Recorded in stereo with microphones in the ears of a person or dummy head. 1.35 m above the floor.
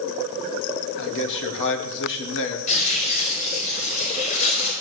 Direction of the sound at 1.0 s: 65° left (ahead or behind).